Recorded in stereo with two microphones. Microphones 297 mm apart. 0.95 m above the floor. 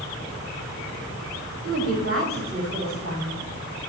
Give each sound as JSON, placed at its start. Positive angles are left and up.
{"t": 1.6, "sound": "a woman speaking", "side_deg": -50, "distance_m": 6.5}